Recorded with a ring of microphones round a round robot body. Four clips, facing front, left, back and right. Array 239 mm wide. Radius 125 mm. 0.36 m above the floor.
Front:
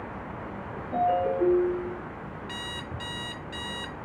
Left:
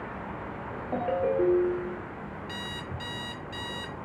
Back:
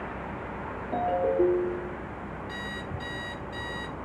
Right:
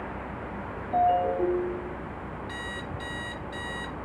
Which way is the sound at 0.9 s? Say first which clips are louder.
Right 4 dB, front 1 dB; 120° left.